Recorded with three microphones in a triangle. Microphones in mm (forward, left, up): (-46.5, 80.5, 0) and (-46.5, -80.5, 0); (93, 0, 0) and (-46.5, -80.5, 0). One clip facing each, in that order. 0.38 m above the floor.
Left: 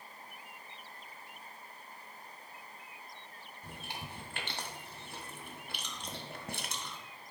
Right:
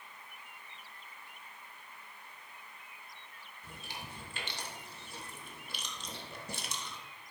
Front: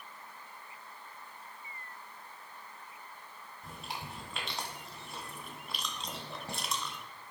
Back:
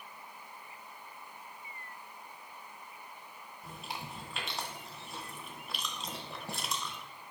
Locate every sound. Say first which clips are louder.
3.6 s chewing: left 2 dB, even; 120° left, 1.5 m